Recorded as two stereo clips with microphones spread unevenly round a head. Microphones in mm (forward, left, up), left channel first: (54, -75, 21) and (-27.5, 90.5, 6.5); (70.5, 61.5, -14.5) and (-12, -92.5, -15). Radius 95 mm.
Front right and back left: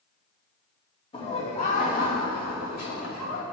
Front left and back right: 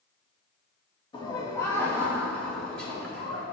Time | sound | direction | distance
1.1 | laughter | straight ahead | 1.5 m